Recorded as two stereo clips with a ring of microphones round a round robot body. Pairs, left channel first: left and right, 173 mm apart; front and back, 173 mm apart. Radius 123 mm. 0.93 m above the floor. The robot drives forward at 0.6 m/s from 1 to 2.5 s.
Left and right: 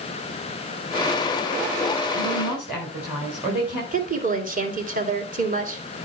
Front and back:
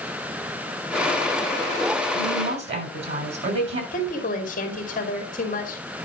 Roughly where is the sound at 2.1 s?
Behind.